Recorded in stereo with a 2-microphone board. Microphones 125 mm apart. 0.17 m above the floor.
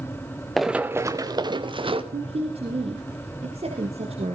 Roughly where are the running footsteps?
Centre.